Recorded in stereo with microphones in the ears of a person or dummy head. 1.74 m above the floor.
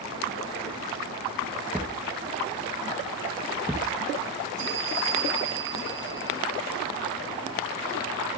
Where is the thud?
5° right (ahead or behind), 1.1 m.